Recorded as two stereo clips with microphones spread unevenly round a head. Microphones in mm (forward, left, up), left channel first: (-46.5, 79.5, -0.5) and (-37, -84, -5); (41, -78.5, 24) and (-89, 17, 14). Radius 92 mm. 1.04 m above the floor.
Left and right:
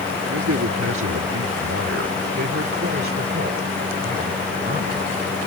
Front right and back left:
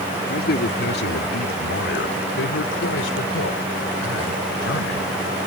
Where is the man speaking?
70° right; by 5.4 s 30° right.